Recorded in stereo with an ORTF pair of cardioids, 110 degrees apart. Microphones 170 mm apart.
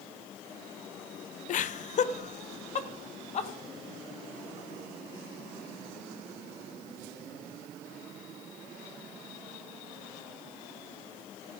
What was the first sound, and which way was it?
Laughter, 55° left.